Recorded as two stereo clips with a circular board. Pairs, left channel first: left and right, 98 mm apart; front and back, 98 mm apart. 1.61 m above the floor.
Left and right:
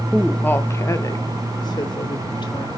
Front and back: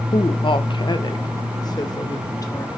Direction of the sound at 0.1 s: Straight ahead.